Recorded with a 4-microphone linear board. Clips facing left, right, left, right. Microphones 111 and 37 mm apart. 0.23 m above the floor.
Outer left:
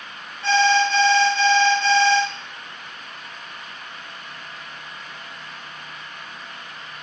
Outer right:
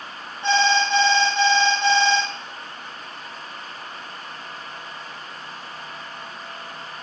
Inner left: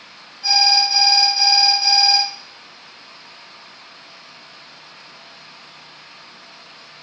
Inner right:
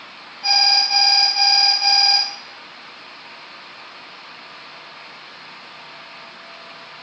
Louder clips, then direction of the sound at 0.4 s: Outer left 2 dB, inner left 1 dB; 20° right (ahead or behind).